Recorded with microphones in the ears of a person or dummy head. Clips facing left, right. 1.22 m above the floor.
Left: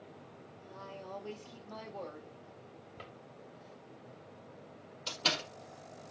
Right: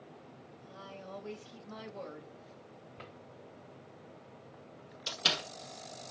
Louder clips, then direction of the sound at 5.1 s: Left 1 dB; 15° right (ahead or behind).